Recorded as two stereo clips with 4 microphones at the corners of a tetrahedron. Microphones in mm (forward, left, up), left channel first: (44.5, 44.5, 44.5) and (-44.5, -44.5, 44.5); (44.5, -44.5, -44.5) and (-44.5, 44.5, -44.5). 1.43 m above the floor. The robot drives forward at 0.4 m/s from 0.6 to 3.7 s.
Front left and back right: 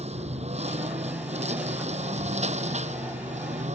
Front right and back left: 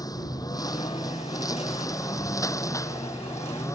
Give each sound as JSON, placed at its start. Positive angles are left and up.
{"t": 0.0, "sound": "a lawn mower", "azimuth_deg": -105}